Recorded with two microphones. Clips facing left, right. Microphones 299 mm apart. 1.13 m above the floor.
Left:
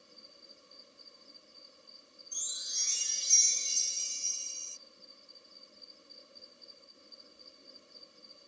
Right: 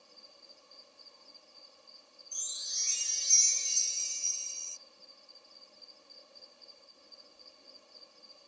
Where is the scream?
I don't hear a scream.